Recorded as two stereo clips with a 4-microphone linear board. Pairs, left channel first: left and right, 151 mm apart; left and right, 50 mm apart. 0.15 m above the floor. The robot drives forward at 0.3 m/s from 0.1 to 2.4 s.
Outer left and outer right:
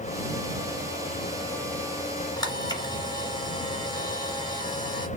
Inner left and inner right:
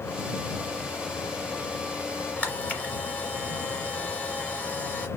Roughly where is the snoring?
I don't hear snoring.